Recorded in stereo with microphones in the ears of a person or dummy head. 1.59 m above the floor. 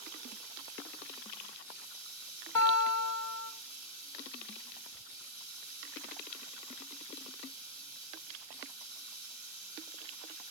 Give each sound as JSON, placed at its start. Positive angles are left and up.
{"t": 0.0, "sound": "running water", "side_deg": -45, "distance_m": 4.5}
{"t": 2.5, "sound": "a guitar", "side_deg": 10, "distance_m": 2.0}